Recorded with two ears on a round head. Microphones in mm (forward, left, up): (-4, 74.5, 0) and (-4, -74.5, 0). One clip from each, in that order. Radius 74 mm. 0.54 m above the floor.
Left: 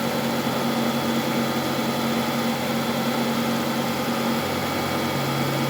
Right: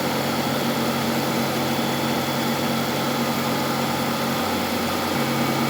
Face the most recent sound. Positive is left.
No sound to turn to.